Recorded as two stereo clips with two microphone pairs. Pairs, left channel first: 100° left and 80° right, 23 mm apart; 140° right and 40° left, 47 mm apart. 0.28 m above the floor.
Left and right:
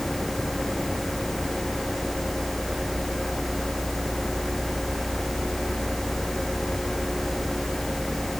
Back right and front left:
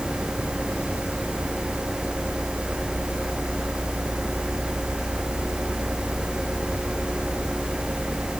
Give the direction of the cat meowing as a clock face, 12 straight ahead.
No cat meowing in this recording.